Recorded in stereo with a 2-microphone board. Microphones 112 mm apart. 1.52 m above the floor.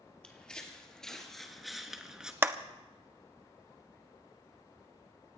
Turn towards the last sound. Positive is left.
turn(degrees=-20)  # may be behind; listen again after turning